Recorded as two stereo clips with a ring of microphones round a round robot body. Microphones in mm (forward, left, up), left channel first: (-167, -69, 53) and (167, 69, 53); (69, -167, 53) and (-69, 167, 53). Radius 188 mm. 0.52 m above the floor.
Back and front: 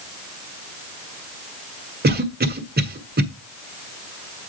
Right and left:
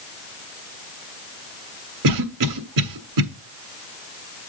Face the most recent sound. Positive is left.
turn(degrees=85)